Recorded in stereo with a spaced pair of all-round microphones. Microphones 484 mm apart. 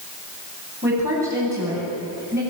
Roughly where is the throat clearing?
No throat clearing in this recording.